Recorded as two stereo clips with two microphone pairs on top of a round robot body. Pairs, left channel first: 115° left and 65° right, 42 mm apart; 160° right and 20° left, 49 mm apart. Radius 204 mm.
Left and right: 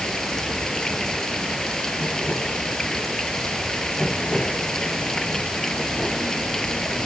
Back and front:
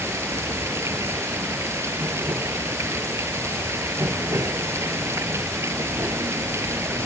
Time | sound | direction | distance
0.0 | running water | 40° left | ?